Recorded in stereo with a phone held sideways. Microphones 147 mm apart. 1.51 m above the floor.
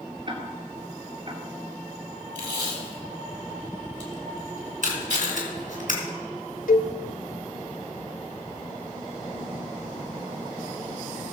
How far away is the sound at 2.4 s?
About 3 m.